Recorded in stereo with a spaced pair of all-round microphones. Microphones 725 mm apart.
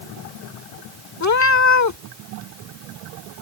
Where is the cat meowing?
25° left (ahead or behind).